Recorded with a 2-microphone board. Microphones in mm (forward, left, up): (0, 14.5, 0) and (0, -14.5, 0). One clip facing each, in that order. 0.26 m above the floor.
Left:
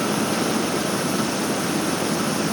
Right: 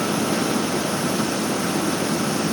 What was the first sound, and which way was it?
Only background noise.